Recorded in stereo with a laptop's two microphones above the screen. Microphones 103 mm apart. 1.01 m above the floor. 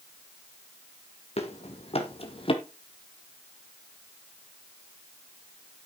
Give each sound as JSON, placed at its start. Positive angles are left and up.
{"t": 1.4, "sound": "running footsteps", "side_deg": 70, "distance_m": 2.5}